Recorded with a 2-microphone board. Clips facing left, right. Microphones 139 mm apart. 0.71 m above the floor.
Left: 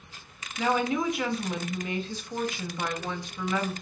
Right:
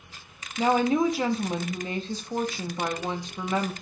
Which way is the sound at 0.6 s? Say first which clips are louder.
Right 4 dB; 30° right (ahead or behind).